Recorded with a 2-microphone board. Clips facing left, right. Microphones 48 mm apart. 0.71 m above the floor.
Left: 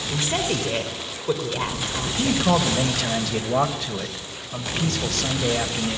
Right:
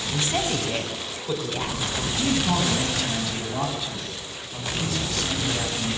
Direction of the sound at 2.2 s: 75° left (ahead or behind).